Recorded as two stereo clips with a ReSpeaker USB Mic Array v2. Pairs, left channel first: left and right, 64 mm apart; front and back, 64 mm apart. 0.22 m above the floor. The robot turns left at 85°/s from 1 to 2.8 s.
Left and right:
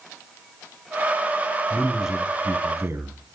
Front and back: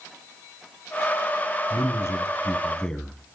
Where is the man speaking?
20° left, 1.6 m; by 3.4 s 75° right, 1.6 m.